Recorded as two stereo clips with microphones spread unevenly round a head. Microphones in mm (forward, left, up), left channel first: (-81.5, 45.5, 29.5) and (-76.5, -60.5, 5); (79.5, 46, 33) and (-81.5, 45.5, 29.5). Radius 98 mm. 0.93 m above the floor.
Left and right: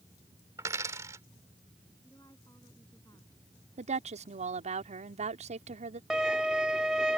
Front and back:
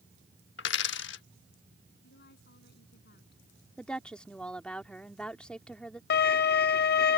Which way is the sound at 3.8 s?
85° right.